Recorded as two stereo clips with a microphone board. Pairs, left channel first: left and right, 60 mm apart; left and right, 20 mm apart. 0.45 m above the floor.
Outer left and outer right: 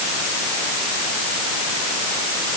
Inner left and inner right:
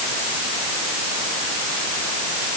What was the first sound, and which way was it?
Only background noise.